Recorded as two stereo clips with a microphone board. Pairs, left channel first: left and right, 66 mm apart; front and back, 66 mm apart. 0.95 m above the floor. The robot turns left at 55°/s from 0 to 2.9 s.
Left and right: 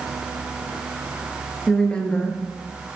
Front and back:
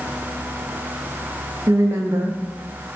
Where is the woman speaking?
175° left, 1.4 m; by 2.4 s 135° left, 1.4 m.